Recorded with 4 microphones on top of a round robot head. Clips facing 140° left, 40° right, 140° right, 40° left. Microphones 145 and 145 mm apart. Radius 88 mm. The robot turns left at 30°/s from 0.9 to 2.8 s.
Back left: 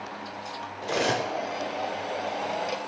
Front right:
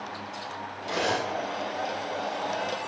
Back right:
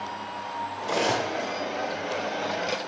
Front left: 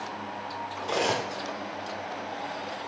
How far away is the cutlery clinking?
About 0.7 m.